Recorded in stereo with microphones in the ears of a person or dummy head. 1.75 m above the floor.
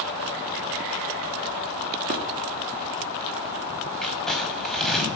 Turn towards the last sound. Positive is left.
turn(degrees=10)  # may be behind; listen again after turning